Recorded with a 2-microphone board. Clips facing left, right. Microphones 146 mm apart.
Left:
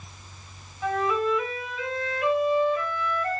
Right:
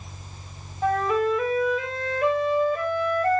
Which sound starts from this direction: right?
A flute, at 0.8 s.